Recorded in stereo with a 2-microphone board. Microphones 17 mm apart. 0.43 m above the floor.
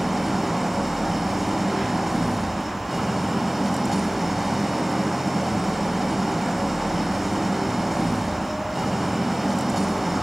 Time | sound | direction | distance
0.0 | an engine running | 10° right (ahead or behind) | 2 m